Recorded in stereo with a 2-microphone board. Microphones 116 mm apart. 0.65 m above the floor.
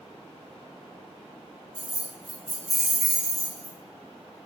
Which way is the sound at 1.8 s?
65° right (ahead or behind).